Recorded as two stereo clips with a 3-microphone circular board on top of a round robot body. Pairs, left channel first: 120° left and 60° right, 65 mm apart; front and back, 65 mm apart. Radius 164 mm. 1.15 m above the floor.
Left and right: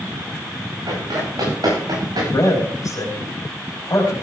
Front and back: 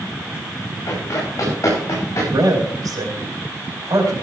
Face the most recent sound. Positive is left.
turn(degrees=155)